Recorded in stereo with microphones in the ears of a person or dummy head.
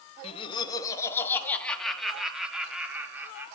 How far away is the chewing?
I don't hear chewing.